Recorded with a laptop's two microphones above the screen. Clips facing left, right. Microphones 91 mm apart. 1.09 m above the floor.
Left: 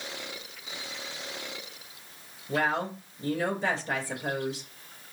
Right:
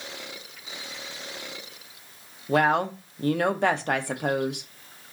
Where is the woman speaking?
70° right (ahead or behind), 0.7 m.